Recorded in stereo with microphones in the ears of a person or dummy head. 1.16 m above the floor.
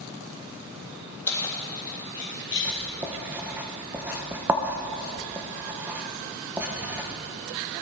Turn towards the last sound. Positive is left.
turn(degrees=-10)  # may be behind; listen again after turning